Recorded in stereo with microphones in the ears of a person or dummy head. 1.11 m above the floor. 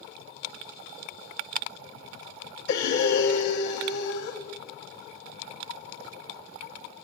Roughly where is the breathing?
Left.